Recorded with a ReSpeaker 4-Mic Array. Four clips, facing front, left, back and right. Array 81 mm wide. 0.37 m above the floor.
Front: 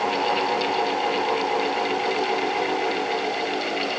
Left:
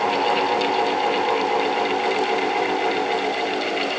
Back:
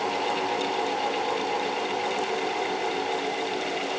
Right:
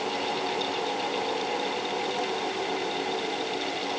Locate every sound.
Only background noise.